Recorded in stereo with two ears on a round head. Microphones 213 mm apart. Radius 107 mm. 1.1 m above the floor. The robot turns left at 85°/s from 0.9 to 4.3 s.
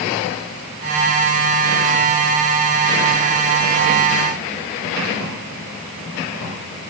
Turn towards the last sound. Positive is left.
No sound to turn to.